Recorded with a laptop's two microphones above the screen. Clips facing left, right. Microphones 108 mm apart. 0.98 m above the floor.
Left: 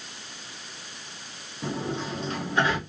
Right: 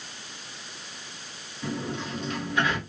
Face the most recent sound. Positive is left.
turn(degrees=30)  # may be behind; listen again after turning